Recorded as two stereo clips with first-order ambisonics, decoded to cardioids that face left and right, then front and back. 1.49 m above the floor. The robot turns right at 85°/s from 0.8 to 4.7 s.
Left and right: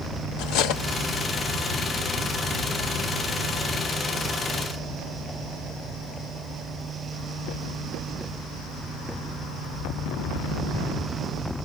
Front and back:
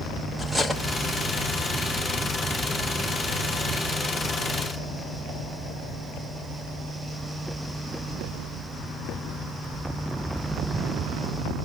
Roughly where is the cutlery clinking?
Left.